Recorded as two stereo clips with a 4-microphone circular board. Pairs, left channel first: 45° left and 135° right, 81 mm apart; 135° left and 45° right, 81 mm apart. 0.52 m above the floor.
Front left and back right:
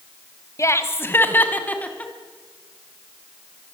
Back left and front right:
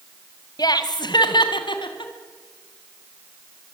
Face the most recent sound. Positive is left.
turn(degrees=120)